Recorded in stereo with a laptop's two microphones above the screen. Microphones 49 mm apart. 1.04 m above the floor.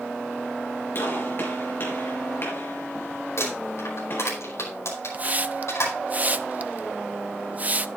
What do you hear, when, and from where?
0.9 s a gunshot: 50° left (ahead or behind), 3.5 m
3.4 s crumpling: 70° left (ahead or behind), 5 m
5.1 s a hiss: 35° right (ahead or behind), 0.6 m